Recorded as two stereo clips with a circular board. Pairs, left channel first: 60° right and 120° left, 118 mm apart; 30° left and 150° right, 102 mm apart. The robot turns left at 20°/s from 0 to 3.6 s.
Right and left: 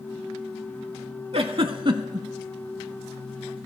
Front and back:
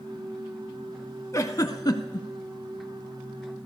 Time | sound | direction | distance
1.3 | a giggle | 85° left | 0.6 m